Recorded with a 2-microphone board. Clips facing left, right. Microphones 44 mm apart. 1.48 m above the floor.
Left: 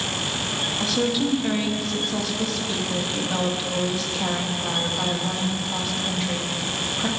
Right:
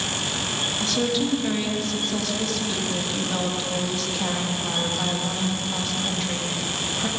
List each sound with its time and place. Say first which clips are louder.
0.8 s a woman speaking: left 1 dB; 5° left (ahead or behind), 2 m